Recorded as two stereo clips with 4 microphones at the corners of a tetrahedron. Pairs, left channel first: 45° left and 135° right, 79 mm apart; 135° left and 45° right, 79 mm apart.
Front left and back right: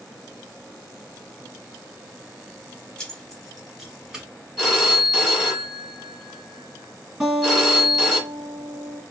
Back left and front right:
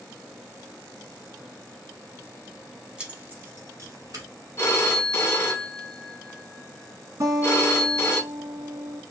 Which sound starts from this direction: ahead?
Keys jangling, at 3.0 s.